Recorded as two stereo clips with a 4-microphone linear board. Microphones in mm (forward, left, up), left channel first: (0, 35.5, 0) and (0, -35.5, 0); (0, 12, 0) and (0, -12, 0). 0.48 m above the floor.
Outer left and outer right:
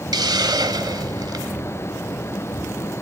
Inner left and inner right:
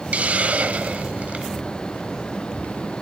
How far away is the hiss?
About 0.9 m.